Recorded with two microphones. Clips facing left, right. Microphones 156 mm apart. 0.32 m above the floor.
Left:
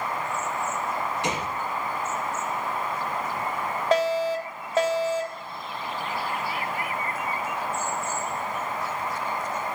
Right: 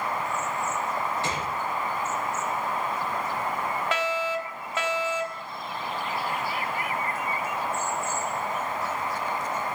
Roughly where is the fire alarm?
Left.